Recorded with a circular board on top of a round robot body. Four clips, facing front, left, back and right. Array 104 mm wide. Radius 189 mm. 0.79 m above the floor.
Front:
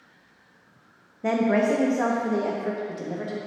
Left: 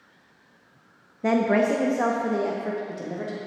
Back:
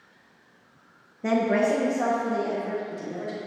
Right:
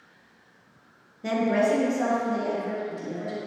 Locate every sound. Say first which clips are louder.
1.2 s a woman speaking: left 2 dB, front 1 dB; 90° left, 0.9 m; by 3.4 s 40° left, 1.7 m